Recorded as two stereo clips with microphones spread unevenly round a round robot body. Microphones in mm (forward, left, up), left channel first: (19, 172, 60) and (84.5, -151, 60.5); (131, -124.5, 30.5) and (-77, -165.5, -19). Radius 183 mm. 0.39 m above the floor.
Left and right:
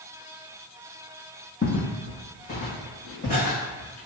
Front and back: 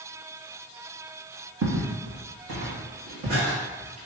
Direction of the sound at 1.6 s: 170° left.